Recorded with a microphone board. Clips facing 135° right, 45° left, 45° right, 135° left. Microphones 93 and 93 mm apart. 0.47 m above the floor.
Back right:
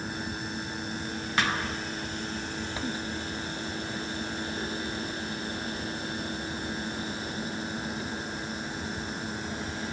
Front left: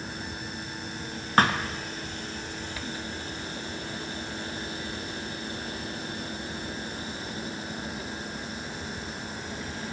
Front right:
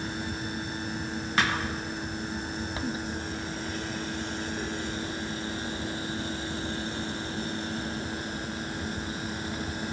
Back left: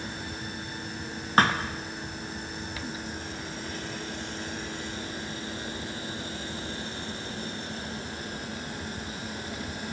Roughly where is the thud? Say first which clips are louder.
Front left 6 dB, back left 5 dB; left.